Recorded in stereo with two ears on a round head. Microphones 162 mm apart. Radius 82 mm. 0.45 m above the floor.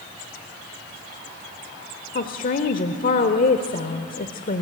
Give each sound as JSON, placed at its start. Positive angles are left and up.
{"t": 2.1, "sound": "a woman speaking", "side_deg": 50, "distance_m": 1.2}